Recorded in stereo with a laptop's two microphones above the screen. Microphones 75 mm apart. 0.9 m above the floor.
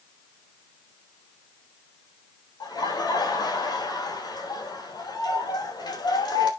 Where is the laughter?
70° left (ahead or behind), 3.5 m.